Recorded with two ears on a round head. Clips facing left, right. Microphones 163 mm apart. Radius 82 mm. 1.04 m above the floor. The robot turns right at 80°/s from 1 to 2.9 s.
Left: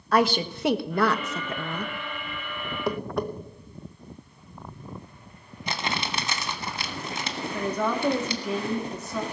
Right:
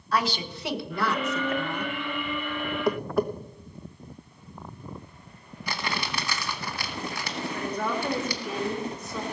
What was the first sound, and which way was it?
A woman speaking, 45° left.